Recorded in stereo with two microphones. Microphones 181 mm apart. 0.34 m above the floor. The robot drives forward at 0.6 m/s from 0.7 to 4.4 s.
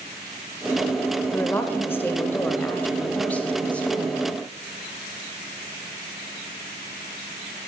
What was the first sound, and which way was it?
A woman speaking, 15° left (ahead or behind).